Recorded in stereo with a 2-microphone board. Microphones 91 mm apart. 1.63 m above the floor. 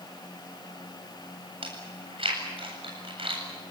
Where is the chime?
I don't hear a chime.